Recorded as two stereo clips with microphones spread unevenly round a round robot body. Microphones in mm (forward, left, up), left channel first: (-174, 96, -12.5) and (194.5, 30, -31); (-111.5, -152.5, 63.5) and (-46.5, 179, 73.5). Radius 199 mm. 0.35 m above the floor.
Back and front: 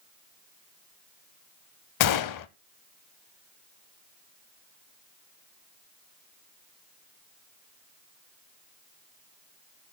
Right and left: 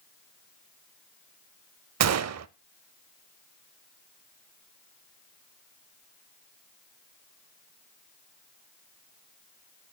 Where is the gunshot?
125° left, 0.7 m.